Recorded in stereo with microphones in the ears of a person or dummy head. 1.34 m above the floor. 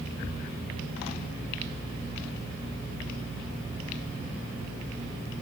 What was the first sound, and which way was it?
Only background noise.